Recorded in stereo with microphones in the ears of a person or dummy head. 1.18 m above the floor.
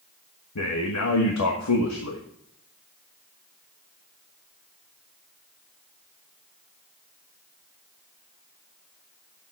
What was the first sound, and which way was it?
A man speaking, 85° left.